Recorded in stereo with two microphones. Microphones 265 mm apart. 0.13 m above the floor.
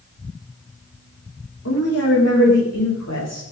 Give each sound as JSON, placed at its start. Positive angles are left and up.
{"t": 1.6, "sound": "a woman speaking", "side_deg": 60, "distance_m": 8.0}